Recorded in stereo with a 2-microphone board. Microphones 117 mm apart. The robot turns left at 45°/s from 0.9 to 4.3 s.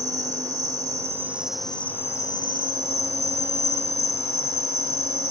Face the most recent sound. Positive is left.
turn(degrees=60)